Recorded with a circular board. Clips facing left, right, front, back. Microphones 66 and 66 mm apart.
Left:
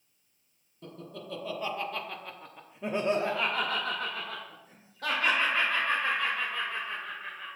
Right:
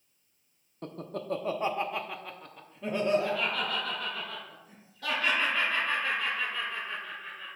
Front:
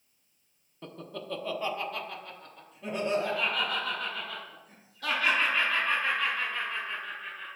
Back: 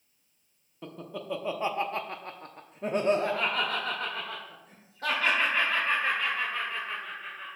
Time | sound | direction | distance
0.8 | laughter | 95° right | 0.9 m